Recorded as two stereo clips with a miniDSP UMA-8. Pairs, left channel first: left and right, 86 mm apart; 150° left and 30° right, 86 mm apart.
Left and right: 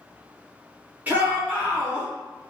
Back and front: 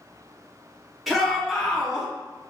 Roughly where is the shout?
Behind right.